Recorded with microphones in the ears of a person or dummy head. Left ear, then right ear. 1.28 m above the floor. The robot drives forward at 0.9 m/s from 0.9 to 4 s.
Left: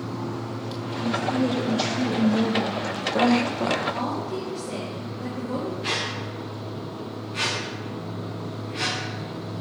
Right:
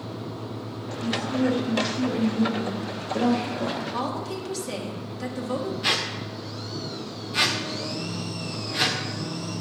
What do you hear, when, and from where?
1.0 s a woman speaking: 30° left (ahead or behind), 3 m; by 3.8 s 80° left, 1.3 m
3.9 s a woman speaking: 80° right, 2.5 m
5.8 s a squeak: 15° right (ahead or behind), 1.0 m